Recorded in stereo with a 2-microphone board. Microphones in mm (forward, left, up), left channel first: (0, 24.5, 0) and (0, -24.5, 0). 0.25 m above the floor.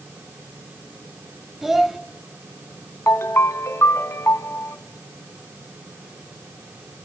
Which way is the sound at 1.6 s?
5° right (ahead or behind).